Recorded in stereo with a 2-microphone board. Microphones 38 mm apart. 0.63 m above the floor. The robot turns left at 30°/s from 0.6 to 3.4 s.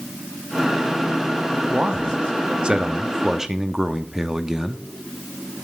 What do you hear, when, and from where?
1.7 s a man speaking: 105° right, 0.8 m; by 4.8 s 155° right, 0.8 m